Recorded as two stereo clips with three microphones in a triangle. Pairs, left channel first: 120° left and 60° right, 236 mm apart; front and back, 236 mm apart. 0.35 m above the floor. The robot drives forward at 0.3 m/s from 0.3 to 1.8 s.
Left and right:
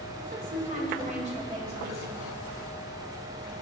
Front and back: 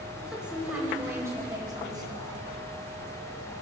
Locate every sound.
0.2 s a woman speaking: 95° right, 1.9 m; by 2.4 s 110° right, 2.0 m